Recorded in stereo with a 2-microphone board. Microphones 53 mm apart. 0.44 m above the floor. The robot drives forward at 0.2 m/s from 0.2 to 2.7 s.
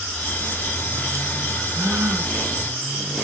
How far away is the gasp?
About 5 m.